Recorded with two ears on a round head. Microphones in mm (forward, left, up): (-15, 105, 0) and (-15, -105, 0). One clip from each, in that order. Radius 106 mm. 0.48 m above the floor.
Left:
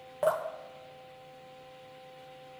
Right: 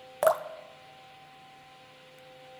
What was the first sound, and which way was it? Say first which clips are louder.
Dripping: right 4 dB; 50° right (ahead or behind).